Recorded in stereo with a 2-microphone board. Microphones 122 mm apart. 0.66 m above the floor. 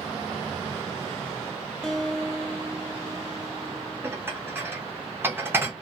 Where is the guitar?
5° left (ahead or behind), 0.5 m.